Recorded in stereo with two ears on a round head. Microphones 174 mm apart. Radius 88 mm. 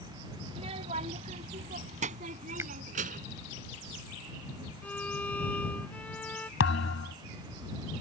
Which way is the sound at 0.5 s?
30° right (ahead or behind).